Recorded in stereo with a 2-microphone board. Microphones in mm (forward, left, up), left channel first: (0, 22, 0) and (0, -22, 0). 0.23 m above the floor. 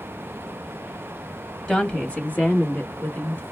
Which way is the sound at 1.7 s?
20° left (ahead or behind).